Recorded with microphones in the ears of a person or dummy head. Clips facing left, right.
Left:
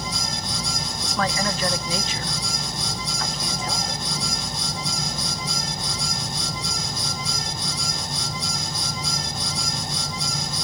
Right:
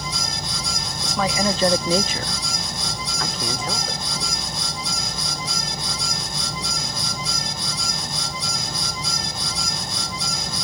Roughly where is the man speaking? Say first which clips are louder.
Right 3 dB; centre.